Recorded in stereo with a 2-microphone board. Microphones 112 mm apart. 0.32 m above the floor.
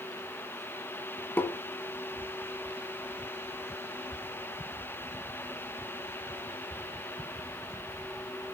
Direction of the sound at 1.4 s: 20° left (ahead or behind).